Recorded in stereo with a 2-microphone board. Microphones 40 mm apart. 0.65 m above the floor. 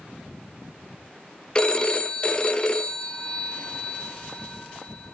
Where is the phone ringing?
25° left (ahead or behind), 0.9 m.